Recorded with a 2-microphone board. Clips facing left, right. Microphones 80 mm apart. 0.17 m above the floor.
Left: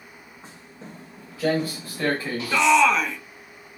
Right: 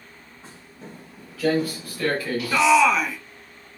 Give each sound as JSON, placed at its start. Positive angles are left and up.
{"t": 0.4, "sound": "footsteps", "side_deg": 20, "distance_m": 7.0}
{"t": 2.5, "sound": "a shout", "side_deg": -5, "distance_m": 1.2}